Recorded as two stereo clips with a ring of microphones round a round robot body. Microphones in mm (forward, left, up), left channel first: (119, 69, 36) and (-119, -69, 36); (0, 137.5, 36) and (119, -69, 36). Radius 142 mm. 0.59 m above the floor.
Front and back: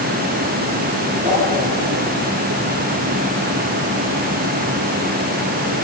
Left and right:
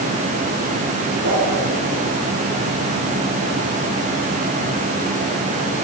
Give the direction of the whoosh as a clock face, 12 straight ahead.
3 o'clock.